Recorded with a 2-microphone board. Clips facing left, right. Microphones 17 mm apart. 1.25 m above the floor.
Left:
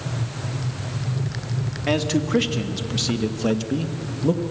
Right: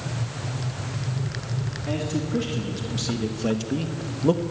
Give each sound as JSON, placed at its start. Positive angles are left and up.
{"t": 1.9, "sound": "a man speaking", "side_deg": 55, "distance_m": 2.0}